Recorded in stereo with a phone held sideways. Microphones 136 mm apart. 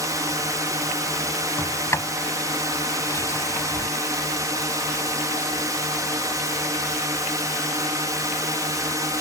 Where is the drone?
25° right (ahead or behind).